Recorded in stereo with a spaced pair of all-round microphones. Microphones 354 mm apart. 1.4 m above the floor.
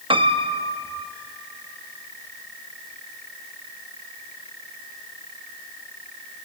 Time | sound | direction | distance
0.1 | a piano | 15° right (ahead or behind) | 0.8 m